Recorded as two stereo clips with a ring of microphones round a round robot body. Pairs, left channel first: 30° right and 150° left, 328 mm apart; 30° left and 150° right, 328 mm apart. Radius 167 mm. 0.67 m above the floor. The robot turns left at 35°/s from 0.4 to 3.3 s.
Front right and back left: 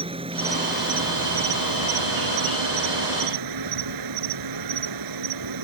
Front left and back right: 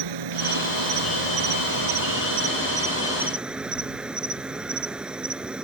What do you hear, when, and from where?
0.0 s an insect: 135° right; by 5.6 s 125° left